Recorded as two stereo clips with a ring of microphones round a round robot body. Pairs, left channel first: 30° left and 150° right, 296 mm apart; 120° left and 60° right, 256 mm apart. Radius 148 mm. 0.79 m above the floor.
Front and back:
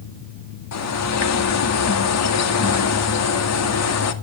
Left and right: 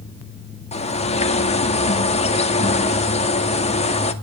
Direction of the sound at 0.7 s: 55° left.